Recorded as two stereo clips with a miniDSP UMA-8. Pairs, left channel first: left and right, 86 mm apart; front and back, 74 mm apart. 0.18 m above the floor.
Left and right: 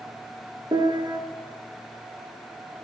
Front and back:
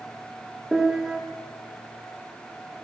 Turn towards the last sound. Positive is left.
turn(degrees=-95)